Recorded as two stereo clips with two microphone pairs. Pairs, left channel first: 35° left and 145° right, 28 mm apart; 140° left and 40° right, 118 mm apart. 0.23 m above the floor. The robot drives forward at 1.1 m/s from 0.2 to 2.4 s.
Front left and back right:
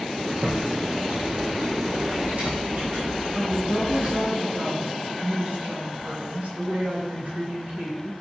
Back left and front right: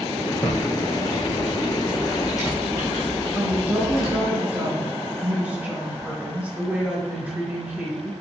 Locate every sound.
0.4 s typing on a keyboard: 150° right, 3.5 m; by 4.2 s 160° right, 5 m
3.4 s a woman speaking: 120° right, 3.5 m